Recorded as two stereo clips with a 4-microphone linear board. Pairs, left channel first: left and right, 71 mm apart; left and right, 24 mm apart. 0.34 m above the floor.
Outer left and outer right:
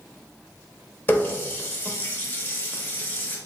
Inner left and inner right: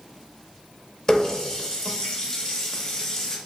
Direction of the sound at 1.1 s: 30° left (ahead or behind).